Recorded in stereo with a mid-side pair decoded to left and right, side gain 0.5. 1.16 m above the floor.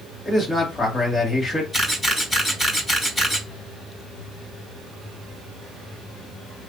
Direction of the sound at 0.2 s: 20° left.